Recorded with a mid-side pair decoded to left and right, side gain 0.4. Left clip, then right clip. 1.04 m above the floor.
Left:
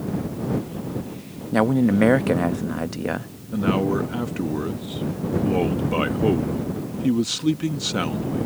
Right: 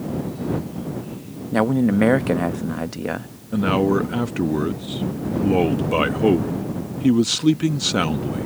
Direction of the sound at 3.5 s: 35° right.